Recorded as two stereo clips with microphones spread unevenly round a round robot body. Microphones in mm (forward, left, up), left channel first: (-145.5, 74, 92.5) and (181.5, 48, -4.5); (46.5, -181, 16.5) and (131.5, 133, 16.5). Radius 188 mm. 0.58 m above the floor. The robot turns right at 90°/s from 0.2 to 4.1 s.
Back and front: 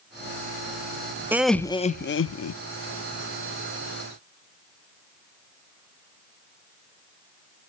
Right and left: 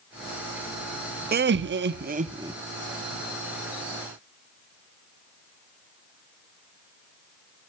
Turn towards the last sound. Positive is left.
turn(degrees=-65)